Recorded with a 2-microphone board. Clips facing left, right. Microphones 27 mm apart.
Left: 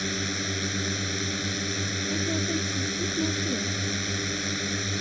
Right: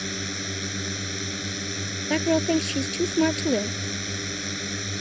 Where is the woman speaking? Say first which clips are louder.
Right 9 dB; 80° right.